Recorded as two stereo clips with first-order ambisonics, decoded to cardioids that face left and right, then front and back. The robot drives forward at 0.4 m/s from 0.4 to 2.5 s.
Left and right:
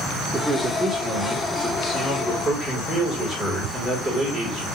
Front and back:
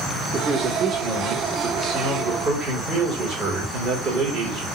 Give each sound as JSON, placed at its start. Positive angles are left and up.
{"t": 0.3, "sound": "a man speaking", "azimuth_deg": -165, "distance_m": 1.2}